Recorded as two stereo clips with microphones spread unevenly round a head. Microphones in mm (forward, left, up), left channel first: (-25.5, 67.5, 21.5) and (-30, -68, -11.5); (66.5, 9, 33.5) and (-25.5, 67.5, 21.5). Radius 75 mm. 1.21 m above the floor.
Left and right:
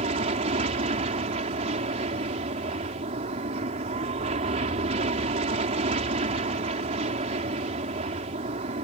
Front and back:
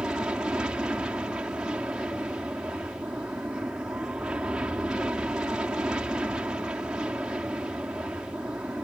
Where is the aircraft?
130° right.